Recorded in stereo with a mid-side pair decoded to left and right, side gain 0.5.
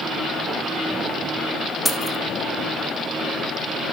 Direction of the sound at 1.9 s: 15° left.